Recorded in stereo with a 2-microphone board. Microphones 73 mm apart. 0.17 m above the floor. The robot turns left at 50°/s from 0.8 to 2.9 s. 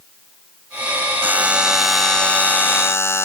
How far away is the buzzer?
About 0.9 m.